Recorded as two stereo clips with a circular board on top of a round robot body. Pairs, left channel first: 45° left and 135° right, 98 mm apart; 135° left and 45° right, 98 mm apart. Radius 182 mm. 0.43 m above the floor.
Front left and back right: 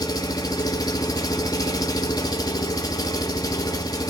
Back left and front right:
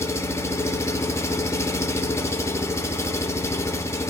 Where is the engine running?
80° left, 0.9 m.